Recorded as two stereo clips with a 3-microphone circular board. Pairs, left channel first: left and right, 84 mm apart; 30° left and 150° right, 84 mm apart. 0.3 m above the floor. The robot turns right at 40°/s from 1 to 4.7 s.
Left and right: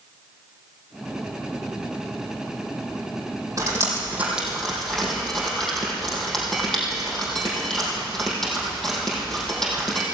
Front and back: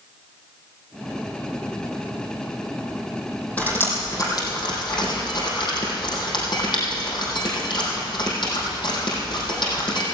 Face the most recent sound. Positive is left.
turn(degrees=5)